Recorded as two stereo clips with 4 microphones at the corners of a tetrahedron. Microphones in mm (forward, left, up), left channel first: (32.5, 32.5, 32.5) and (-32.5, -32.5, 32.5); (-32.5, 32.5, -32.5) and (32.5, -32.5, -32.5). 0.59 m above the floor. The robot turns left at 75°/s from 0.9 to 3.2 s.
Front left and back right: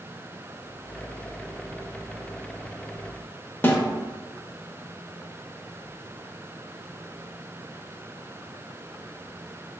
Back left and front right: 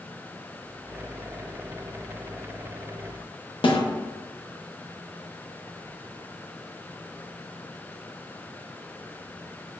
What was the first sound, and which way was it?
A snare drum, 110° left.